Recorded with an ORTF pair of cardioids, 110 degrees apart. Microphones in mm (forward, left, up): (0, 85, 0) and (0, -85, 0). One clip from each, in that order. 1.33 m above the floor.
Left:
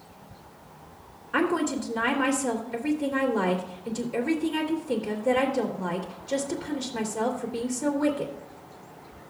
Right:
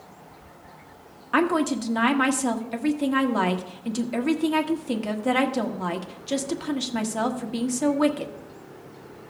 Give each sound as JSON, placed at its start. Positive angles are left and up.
{"t": 1.3, "sound": "a woman speaking", "azimuth_deg": -70, "distance_m": 1.7}